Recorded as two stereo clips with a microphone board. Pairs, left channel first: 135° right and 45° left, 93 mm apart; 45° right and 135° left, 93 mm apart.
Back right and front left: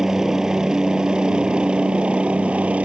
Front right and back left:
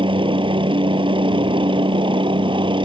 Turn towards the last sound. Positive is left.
turn(degrees=120)